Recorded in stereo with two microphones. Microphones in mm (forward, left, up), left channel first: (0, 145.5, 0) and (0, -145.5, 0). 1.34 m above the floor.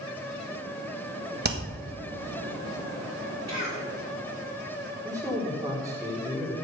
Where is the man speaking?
10° right (ahead or behind), 3.5 m.